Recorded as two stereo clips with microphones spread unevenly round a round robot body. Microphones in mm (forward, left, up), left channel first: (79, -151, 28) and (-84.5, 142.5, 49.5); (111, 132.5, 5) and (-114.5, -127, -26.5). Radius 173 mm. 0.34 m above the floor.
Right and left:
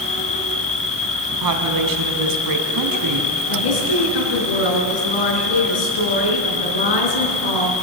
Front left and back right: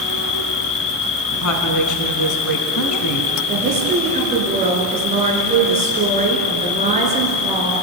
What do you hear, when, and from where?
0.0 s an insect: 10° left, 1.8 m
1.3 s a woman speaking: 90° left, 3 m
3.5 s a woman speaking: 60° right, 4.5 m